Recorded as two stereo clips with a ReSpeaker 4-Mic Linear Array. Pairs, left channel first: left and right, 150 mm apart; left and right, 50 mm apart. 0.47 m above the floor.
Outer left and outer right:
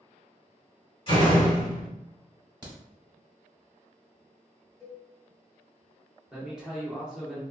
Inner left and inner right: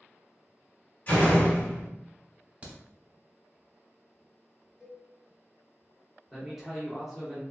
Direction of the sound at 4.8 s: 5° left (ahead or behind).